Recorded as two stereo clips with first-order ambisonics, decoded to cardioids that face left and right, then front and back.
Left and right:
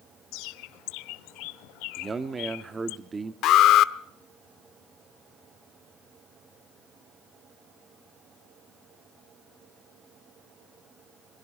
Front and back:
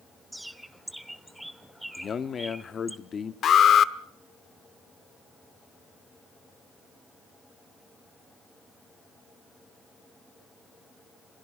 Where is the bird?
90° left, 0.9 m.